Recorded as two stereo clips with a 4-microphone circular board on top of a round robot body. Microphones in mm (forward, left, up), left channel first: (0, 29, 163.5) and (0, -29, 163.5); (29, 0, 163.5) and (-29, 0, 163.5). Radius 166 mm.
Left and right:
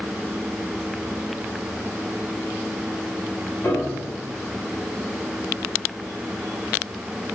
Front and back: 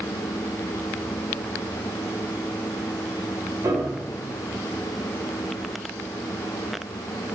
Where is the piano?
145° left, 2.5 m.